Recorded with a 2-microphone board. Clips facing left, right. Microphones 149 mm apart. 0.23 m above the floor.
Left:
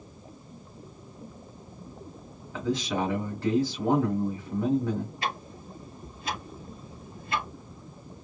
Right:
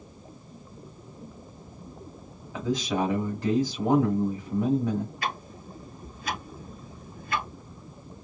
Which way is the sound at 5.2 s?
25° left (ahead or behind).